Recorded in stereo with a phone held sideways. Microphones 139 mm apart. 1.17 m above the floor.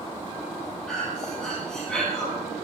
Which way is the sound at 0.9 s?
5° left (ahead or behind).